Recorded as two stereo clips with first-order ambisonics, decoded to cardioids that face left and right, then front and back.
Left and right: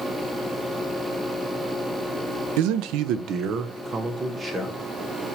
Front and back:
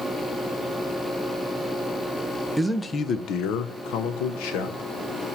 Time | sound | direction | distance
2.6 | a man speaking | 95° right | 0.6 m